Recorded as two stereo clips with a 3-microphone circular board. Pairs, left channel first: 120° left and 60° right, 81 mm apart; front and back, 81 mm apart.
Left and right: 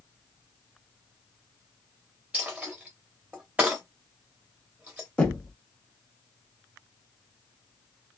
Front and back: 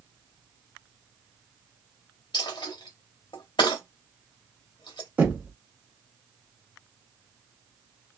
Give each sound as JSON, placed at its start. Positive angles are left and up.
{"t": 2.3, "sound": "a dropped coin", "azimuth_deg": 15, "distance_m": 0.9}
{"t": 5.2, "sound": "knocking", "azimuth_deg": 170, "distance_m": 1.0}